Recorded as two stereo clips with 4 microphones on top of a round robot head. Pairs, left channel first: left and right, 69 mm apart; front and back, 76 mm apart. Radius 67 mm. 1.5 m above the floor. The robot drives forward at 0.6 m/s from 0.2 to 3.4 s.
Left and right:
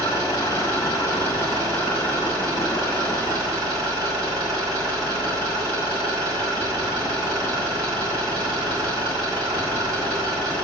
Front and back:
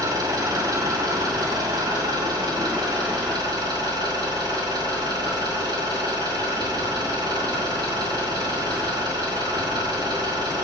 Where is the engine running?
145° left, 3.5 m; by 10.7 s 155° left, 5 m.